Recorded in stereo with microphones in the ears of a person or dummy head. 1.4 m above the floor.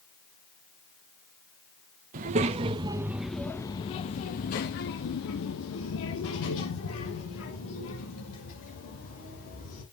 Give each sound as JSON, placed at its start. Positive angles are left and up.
{"t": 2.1, "sound": "a child speaking", "side_deg": -45, "distance_m": 1.0}